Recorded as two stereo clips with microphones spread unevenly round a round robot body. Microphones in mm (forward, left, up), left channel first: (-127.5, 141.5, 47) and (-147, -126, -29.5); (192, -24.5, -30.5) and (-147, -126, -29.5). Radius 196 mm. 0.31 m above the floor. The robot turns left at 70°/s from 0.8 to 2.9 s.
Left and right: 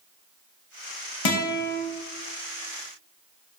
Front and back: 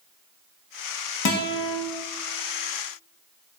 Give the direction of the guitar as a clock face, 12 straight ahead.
10 o'clock.